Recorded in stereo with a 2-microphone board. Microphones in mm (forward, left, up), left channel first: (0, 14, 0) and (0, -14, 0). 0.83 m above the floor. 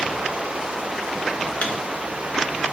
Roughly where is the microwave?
Left.